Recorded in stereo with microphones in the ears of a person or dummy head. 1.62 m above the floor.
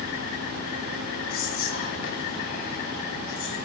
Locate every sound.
1.3 s whispering: 55° left (ahead or behind), 3.5 m